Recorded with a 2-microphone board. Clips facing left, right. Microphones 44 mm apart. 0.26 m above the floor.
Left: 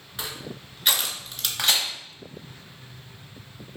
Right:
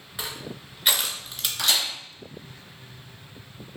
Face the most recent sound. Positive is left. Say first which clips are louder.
# left 1 dB
turn(degrees=35)  # may be behind; listen again after turning